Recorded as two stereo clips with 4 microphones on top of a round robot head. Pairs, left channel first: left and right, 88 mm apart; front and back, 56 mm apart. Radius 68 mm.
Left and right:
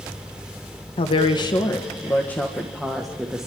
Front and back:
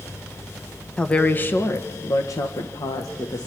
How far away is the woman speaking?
About 1.5 m.